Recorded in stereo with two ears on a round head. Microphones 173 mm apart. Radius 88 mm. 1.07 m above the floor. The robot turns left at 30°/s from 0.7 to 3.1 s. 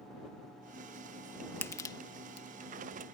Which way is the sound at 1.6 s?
10° left (ahead or behind).